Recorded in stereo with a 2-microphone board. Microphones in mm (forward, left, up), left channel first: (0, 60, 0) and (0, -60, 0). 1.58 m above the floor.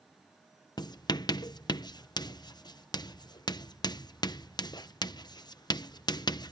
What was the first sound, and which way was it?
Writing, 35° left (ahead or behind).